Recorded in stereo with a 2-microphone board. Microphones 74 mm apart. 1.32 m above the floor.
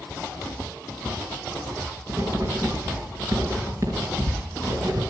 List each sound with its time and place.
2.1 s writing: 45° right (ahead or behind), 4.5 m